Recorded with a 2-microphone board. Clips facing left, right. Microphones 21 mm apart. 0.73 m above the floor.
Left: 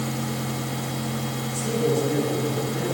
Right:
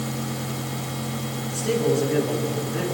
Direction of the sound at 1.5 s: 30° right (ahead or behind).